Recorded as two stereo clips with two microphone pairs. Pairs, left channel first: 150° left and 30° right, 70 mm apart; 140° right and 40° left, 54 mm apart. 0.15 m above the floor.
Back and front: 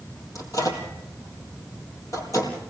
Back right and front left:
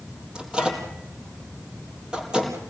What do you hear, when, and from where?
0.3 s a microwave: 115° left, 4.5 m